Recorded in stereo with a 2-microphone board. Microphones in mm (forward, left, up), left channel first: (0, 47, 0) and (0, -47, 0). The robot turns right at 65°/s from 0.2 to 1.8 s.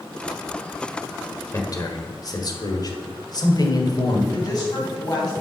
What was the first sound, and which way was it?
A man speaking, 35° left (ahead or behind).